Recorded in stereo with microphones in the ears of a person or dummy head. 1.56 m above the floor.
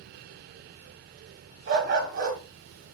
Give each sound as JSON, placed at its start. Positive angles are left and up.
{"t": 1.7, "sound": "a dog barking", "side_deg": -45, "distance_m": 1.6}